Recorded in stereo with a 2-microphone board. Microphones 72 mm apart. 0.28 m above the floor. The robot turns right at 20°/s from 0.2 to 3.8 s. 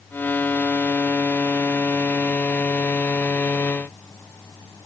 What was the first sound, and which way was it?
Only background noise.